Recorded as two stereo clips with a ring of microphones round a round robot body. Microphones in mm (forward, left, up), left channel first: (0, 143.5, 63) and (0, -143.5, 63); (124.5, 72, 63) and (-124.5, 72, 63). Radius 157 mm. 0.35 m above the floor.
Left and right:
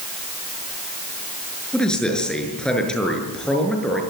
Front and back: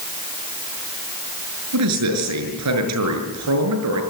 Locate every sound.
1.7 s a man speaking: 175° left, 6 m